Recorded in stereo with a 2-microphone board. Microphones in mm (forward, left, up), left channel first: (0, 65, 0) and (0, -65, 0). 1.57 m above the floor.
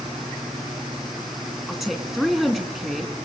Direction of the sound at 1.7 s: 5° right (ahead or behind).